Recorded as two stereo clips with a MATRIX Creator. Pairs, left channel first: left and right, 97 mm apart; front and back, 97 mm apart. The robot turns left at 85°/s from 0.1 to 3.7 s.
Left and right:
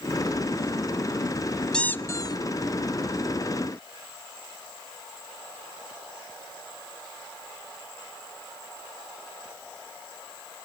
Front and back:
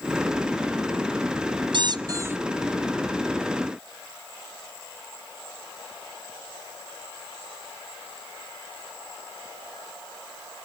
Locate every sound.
1.7 s a squeak: 170° left, 0.6 m; by 2.4 s 115° left, 0.6 m